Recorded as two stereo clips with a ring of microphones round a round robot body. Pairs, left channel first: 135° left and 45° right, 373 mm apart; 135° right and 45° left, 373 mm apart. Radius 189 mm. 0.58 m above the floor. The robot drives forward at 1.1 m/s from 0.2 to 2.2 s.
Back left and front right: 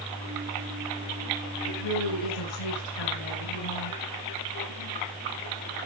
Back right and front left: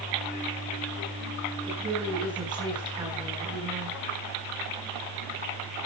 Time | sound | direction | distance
1.7 | a woman speaking | 120° left | 8.5 m